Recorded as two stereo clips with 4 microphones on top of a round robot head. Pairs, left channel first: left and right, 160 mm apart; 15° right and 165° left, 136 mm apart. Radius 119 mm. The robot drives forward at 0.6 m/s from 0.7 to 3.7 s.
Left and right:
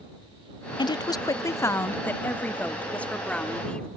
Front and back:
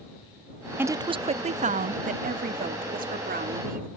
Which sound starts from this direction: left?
A woman speaking, at 0.8 s.